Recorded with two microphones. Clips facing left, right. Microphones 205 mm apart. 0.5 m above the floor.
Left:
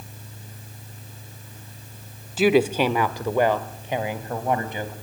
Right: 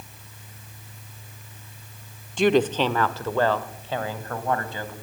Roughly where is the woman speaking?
Centre.